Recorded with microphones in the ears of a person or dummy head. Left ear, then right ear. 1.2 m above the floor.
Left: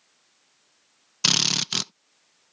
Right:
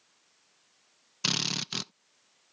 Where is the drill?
10° left (ahead or behind).